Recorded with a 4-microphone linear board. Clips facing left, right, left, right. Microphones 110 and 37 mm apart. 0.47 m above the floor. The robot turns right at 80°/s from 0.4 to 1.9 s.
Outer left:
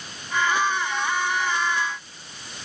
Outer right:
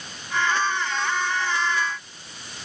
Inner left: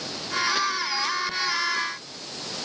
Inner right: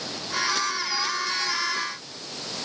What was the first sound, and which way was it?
Only background noise.